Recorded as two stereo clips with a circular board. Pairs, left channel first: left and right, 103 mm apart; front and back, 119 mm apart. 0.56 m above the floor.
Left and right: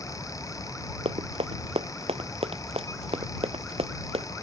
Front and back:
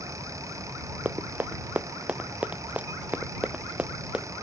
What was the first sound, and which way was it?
Running footsteps, 105° right.